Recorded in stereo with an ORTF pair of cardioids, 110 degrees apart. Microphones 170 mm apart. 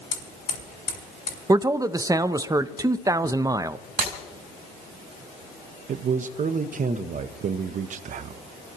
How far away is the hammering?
About 6 m.